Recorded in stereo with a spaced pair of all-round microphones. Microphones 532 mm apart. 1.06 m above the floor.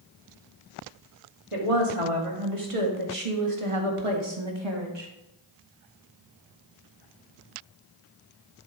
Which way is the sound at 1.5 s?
75° right (ahead or behind).